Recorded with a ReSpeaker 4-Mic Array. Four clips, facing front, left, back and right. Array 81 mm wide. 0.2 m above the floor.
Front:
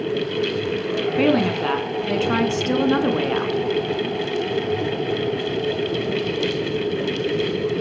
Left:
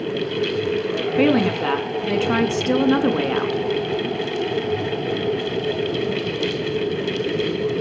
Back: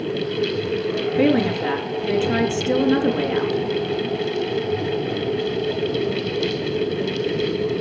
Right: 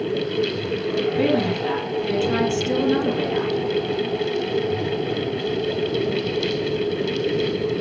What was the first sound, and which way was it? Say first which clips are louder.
A woman speaking: left 6 dB, back 1 dB; 55° left.